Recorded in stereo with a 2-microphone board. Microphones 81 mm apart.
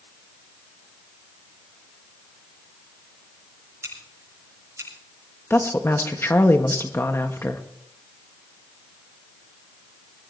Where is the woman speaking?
30° left (ahead or behind), 1.5 m.